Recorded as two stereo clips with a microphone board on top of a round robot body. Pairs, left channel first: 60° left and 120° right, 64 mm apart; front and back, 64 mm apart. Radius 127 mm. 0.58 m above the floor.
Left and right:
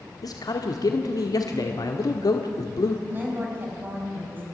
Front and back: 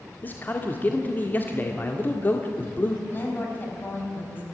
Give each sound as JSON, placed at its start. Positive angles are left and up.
{"t": 0.2, "sound": "a man speaking", "azimuth_deg": 60, "distance_m": 1.6}
{"t": 3.1, "sound": "a woman speaking", "azimuth_deg": -60, "distance_m": 5.0}